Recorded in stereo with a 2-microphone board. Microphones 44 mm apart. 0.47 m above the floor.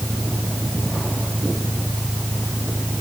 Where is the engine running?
Centre (ahead or behind).